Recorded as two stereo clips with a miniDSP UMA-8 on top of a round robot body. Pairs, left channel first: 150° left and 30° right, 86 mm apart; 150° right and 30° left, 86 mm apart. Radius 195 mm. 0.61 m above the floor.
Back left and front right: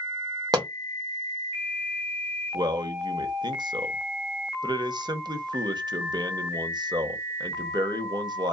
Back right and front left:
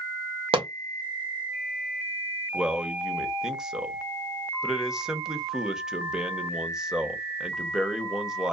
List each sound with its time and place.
0.5 s a pop: 15° left, 0.6 m
2.5 s a man speaking: 50° right, 0.9 m